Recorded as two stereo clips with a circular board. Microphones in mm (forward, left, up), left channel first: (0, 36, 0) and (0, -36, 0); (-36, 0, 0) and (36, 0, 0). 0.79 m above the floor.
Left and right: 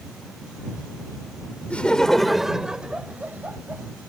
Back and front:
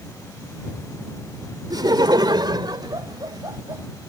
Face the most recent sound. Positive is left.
turn(degrees=-25)